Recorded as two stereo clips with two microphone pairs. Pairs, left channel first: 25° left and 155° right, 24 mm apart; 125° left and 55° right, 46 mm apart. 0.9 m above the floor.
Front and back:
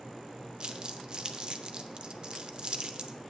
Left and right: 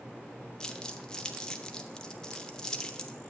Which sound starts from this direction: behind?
Crumpling, at 0.6 s.